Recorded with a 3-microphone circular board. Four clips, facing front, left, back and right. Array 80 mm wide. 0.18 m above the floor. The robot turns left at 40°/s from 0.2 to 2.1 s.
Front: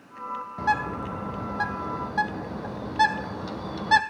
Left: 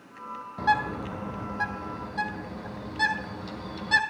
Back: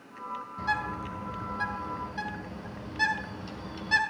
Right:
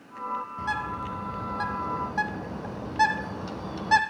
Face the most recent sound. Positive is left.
turn(degrees=-25)